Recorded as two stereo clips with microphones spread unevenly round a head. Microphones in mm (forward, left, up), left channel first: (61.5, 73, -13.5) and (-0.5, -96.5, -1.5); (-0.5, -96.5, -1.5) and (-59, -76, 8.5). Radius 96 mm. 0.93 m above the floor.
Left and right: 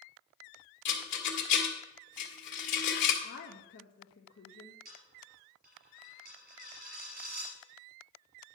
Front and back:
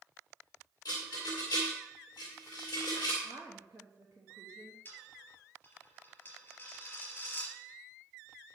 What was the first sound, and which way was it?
A rattle, 45° left.